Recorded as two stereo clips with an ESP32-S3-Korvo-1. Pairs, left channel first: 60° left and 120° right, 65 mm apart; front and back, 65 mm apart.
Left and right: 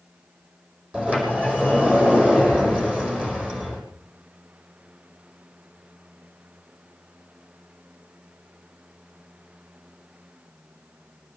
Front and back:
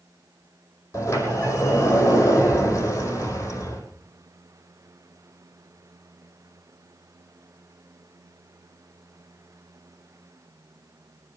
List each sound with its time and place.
0.9 s a sliding door: 50° right, 5 m